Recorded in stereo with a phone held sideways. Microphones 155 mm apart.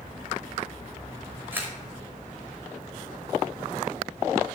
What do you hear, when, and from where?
1.5 s a camera shutter: 15° right (ahead or behind), 4.5 m